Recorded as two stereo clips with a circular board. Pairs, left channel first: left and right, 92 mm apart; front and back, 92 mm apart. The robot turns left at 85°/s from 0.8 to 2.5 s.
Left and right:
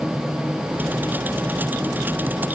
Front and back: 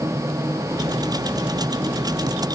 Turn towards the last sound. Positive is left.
No sound to turn to.